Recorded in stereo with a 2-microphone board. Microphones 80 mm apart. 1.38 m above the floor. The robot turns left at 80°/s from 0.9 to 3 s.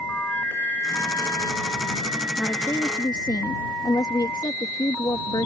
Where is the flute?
160° left; by 1.5 s 110° left.